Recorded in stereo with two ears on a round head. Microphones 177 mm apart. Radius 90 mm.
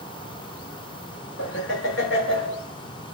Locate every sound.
1.4 s laughter: 65° left (ahead or behind), 6 m